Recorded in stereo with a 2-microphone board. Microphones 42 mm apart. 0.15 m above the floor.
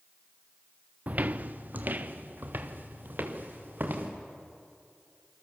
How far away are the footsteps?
About 0.8 m.